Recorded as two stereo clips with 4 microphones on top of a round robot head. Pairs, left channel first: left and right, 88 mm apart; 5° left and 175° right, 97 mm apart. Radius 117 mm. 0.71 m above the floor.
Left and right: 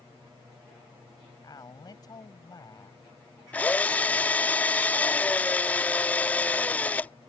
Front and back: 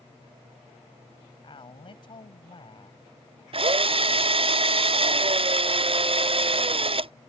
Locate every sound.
1.4 s a man speaking: 40° left
3.5 s a drill: 165° left